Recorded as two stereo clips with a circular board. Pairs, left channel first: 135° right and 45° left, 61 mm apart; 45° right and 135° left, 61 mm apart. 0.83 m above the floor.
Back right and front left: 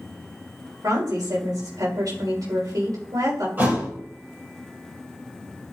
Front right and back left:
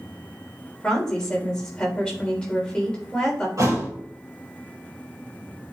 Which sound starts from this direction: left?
A thud, at 3.6 s.